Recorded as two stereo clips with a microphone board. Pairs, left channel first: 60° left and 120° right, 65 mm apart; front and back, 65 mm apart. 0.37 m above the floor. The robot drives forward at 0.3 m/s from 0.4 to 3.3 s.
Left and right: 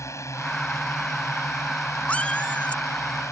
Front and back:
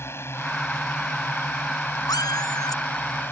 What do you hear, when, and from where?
0.0 s a drone: 40° left; by 3.3 s 45° left
2.1 s a cat meowing: 10° right